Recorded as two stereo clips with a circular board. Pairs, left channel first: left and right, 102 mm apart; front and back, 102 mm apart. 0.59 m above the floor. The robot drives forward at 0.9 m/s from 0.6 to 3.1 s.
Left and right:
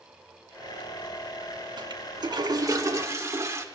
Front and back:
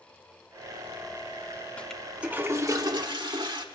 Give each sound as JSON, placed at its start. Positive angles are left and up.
{"t": 1.8, "sound": "a toilet flushing", "azimuth_deg": -75, "distance_m": 1.0}